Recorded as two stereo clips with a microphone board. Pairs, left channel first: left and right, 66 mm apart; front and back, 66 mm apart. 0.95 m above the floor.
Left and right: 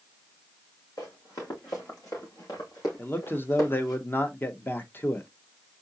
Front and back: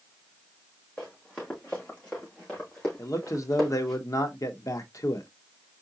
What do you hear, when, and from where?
1.0 s running footsteps: 70° left, 4.5 m; by 4.0 s 85° left, 3 m
3.0 s a man speaking: 30° left, 1.0 m